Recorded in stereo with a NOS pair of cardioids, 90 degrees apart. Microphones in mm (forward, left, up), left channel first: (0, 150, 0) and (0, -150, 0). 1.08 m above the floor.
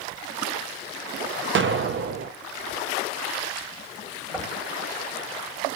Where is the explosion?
45° right, 0.9 m.